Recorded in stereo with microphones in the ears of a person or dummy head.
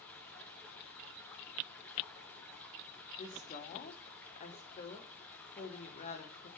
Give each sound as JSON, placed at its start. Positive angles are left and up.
{"t": 0.0, "sound": "running water", "side_deg": 5, "distance_m": 3.0}
{"t": 3.2, "sound": "a woman speaking", "side_deg": 35, "distance_m": 3.0}